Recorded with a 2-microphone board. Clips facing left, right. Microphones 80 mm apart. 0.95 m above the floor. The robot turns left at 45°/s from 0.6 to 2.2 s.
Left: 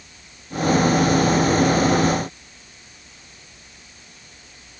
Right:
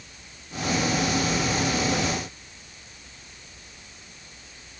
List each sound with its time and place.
Only background noise.